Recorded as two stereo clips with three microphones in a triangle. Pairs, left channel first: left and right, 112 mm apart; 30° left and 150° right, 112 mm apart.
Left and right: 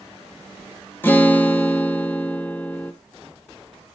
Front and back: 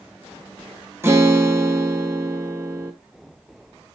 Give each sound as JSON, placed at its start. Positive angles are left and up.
{"t": 1.0, "sound": "a guitar", "azimuth_deg": 155, "distance_m": 0.8}